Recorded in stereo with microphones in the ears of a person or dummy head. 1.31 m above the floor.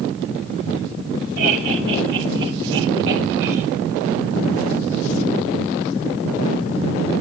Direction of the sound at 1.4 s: 60° right (ahead or behind).